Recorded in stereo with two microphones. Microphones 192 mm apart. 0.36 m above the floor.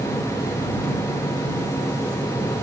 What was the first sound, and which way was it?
Only background noise.